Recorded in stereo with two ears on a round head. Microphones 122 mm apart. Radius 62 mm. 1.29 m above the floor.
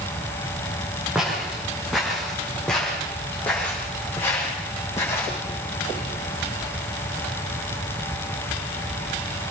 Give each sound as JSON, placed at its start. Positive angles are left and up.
{"t": 1.1, "sound": "footsteps", "side_deg": 0, "distance_m": 5.5}